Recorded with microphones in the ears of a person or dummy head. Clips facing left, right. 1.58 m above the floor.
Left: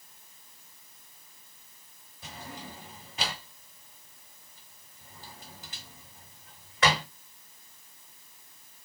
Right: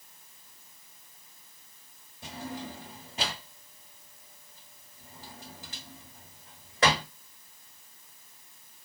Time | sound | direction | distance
2.2 | a drawer | 30° right (ahead or behind) | 1.6 m